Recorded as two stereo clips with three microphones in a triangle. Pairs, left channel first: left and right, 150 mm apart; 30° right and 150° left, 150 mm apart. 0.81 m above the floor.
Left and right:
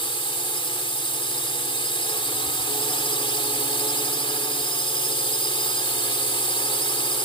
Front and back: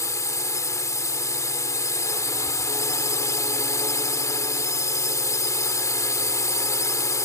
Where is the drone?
40° left.